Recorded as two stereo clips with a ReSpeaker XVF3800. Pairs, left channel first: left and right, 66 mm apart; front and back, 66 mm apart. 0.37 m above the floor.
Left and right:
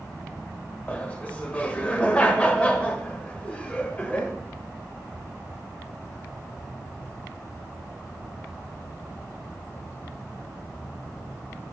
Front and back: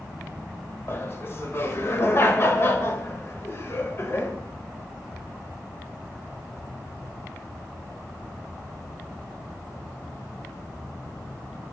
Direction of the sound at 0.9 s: 30° left.